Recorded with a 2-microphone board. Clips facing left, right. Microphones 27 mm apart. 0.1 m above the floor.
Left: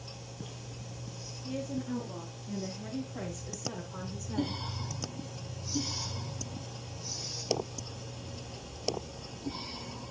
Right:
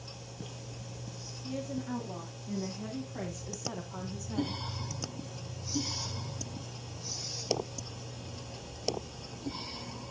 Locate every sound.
1.4 s a woman speaking: 40° right (ahead or behind), 7.5 m; by 4.6 s 5° right (ahead or behind), 4.5 m